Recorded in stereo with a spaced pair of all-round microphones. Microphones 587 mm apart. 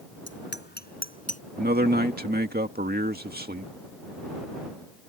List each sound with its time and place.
0.3 s a bicycle bell: 20° left (ahead or behind); by 1.4 s 10° left (ahead or behind)
1.6 s a man speaking: 15° right (ahead or behind)